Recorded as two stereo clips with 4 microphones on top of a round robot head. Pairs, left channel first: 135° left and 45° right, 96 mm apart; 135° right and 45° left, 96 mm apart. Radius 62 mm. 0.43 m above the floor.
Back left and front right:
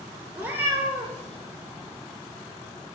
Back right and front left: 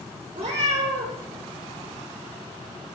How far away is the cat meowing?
About 3 m.